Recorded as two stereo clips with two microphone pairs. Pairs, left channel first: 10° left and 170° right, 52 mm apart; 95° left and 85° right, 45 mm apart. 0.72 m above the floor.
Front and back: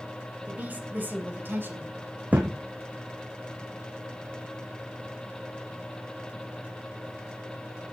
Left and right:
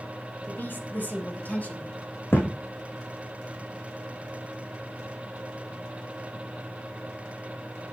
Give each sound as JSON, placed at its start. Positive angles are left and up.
{"t": 0.5, "sound": "a woman speaking", "azimuth_deg": 130, "distance_m": 4.0}
{"t": 2.3, "sound": "a thud", "azimuth_deg": 130, "distance_m": 3.5}